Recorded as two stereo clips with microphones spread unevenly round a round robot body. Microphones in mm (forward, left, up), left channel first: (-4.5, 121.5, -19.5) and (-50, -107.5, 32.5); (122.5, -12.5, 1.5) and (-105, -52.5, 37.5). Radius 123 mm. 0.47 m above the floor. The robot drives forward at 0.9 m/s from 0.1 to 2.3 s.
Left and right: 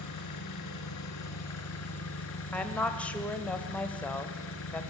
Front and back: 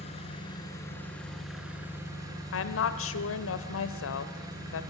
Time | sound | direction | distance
0.0 | an engine running | 80° left | 3 m
2.5 | a woman speaking | straight ahead | 1.5 m